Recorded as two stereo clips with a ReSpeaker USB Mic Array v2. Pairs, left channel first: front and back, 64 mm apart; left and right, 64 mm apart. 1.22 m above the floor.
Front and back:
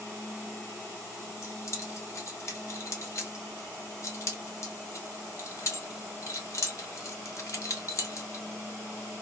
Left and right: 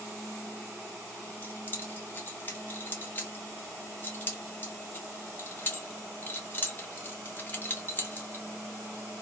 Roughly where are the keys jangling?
Ahead left.